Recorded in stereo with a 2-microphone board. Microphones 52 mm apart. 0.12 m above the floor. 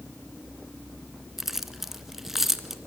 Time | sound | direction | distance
1.4 | keys jangling | 10° right (ahead or behind) | 0.9 m